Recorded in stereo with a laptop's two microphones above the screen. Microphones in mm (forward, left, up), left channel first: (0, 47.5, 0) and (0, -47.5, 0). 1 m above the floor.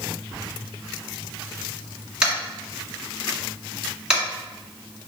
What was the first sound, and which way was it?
Tapping, 10° right (ahead or behind).